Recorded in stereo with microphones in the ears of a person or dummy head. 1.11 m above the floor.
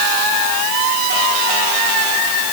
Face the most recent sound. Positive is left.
No sound to turn to.